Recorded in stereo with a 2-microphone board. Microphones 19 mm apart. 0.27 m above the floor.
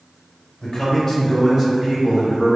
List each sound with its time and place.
0.6 s a man speaking: 20° left (ahead or behind), 1.1 m; by 2.6 s 40° right (ahead or behind), 1.4 m